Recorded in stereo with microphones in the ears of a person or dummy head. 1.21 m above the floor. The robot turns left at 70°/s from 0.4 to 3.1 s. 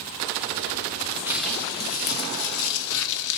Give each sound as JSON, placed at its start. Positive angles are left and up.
{"t": 1.3, "sound": "crumpling", "azimuth_deg": -170, "distance_m": 0.6}